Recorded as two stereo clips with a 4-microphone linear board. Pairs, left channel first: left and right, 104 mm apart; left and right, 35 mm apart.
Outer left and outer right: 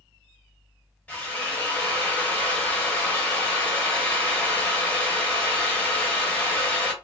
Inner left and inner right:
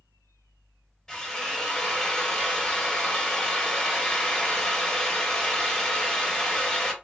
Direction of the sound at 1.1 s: 15° left (ahead or behind).